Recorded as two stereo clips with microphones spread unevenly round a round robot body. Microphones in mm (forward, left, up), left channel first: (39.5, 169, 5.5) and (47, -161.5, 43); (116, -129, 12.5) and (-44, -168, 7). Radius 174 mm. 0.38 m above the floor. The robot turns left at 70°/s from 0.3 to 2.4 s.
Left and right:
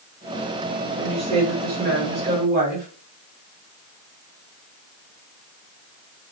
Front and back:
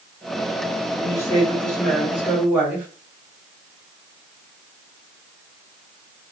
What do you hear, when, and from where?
1.0 s a woman speaking: 10° right, 1.1 m; by 2.9 s 110° right, 1.1 m